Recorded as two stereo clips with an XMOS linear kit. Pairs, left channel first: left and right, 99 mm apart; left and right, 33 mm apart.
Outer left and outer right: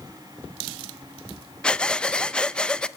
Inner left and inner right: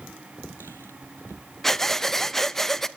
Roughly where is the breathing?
Centre.